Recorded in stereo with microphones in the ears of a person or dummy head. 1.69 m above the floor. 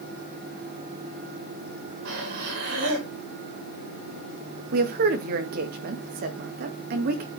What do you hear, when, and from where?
2.0 s breathing: 70° right (ahead or behind), 5 m
4.7 s a woman speaking: 55° right (ahead or behind), 1.8 m